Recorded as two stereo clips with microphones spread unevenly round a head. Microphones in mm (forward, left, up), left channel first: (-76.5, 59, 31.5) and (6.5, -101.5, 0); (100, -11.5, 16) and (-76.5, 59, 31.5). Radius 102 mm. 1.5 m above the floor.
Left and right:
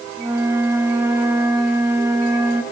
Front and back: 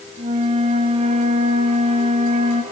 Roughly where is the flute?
Behind right.